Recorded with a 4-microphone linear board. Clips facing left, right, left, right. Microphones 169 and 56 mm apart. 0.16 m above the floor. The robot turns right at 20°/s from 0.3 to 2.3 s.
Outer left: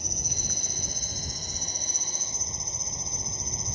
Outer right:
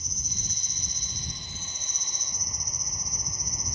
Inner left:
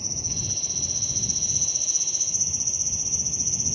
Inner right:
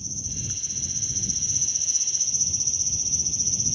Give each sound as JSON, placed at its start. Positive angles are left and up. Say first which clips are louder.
{"t": 0.0, "sound": "an insect", "louder": "outer left 5 dB, inner left 2 dB", "azimuth_deg": 115}